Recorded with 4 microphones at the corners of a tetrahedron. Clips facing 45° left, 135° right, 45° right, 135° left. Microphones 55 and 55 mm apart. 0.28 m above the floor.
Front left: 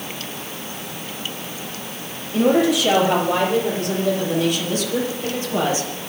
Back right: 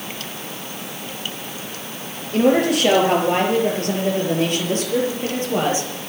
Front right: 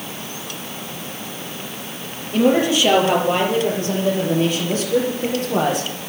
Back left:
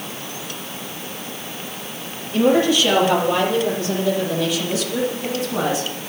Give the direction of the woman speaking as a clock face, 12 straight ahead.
4 o'clock.